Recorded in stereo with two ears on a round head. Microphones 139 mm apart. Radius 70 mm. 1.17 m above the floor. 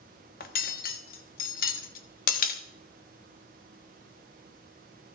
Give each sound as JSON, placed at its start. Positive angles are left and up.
{"t": 0.4, "sound": "cutlery clinking", "side_deg": 60, "distance_m": 1.0}